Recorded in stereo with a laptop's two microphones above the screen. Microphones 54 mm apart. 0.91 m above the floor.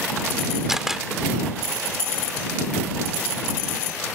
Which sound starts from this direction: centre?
A camera shutter, at 0.7 s.